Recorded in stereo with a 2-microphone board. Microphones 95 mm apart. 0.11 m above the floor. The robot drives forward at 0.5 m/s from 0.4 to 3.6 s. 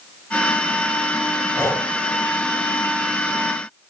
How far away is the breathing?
About 0.9 m.